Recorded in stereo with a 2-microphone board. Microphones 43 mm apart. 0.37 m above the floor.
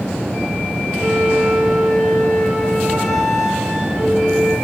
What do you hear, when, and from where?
1.0 s a flute: centre (ahead or behind), 6 m